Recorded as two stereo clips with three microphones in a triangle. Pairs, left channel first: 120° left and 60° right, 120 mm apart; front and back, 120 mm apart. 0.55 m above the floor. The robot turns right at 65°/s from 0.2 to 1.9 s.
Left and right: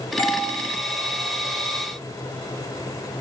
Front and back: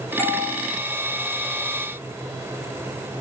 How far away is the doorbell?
About 1.8 m.